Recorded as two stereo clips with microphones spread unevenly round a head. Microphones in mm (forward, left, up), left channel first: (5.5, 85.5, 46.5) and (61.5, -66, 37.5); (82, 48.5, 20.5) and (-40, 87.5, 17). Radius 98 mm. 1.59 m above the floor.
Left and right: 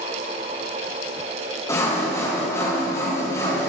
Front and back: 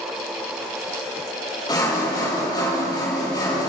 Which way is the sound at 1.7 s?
40° left.